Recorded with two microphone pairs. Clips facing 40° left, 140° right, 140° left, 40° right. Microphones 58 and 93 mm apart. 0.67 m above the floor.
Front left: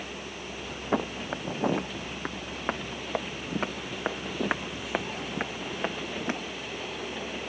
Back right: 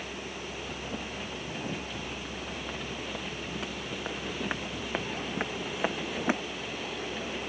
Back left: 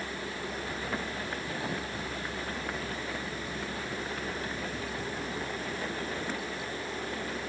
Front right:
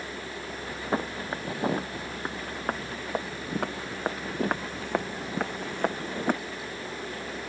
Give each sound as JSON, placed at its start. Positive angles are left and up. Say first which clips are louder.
{"t": 0.9, "sound": "footsteps", "louder": "front left 7 dB, front right 5 dB", "azimuth_deg": 15}